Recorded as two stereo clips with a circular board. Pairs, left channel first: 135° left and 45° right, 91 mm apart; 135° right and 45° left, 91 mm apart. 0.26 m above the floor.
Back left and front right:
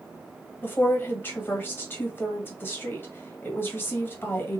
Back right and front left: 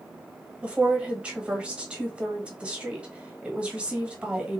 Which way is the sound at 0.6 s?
110° left.